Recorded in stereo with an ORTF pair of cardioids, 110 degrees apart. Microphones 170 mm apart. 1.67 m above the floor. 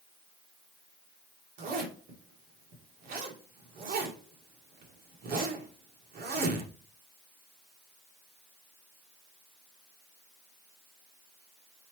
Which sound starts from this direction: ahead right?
A zipper, at 1.6 s.